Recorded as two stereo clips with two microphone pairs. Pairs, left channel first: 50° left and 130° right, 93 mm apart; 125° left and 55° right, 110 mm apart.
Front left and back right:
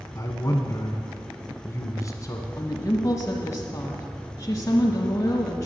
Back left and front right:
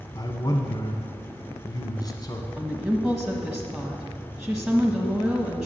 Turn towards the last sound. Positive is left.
turn(degrees=30)